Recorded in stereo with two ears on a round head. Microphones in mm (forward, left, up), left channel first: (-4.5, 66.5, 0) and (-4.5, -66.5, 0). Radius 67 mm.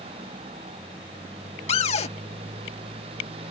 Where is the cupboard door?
45° left (ahead or behind).